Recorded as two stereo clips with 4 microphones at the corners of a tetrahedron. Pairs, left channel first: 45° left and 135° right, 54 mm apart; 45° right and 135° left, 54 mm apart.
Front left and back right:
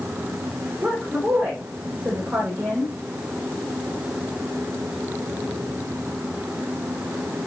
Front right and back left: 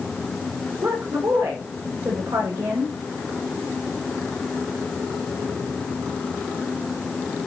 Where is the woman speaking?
155° left, 8.5 m.